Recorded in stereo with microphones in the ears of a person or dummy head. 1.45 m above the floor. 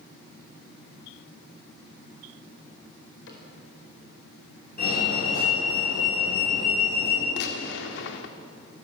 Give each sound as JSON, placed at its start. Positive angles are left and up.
{"t": 3.3, "sound": "a cupboard door", "side_deg": 75, "distance_m": 4.5}
{"t": 4.8, "sound": "a fire alarm", "side_deg": 50, "distance_m": 6.0}
{"t": 7.4, "sound": "a gunshot", "side_deg": 65, "distance_m": 1.7}